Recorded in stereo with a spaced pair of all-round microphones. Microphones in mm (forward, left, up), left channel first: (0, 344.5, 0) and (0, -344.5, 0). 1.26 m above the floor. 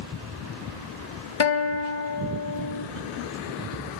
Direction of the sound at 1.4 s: 45° left (ahead or behind).